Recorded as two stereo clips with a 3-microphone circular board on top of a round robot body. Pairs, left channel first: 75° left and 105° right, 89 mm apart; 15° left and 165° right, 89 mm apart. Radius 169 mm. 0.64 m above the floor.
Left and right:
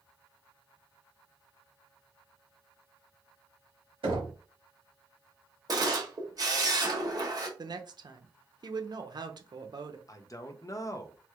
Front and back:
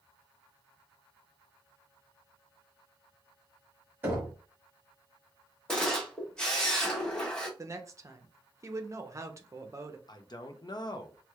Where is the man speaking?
35° left, 0.7 m.